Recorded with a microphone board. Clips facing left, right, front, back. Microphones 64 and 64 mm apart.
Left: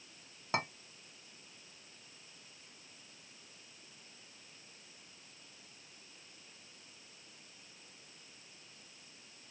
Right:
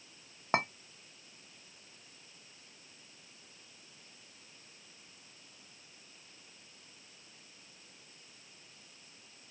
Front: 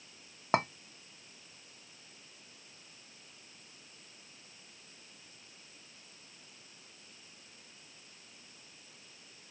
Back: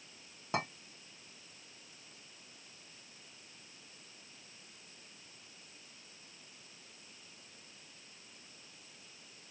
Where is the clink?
35° right, 0.8 m.